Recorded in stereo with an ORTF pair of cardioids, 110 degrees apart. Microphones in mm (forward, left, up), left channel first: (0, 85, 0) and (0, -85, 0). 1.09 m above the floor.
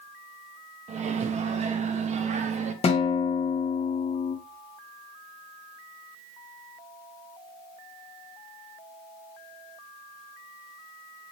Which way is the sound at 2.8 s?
40° left.